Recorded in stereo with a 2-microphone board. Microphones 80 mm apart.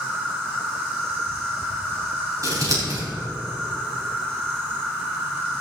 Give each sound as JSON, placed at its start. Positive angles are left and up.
{"t": 0.0, "sound": "an insect", "side_deg": -25, "distance_m": 2.0}
{"t": 2.4, "sound": "scissors", "side_deg": -45, "distance_m": 4.0}